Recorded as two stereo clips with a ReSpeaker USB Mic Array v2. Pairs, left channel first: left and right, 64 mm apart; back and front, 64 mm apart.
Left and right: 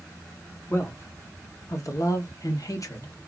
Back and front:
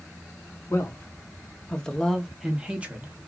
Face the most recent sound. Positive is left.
turn(degrees=55)